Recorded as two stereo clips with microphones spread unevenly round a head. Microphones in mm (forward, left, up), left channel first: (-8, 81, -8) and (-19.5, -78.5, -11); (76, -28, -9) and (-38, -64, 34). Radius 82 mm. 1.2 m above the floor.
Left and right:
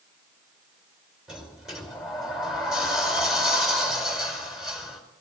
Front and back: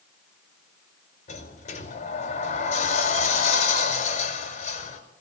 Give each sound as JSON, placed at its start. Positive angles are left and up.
{"t": 1.3, "sound": "a sliding door", "azimuth_deg": -5, "distance_m": 5.0}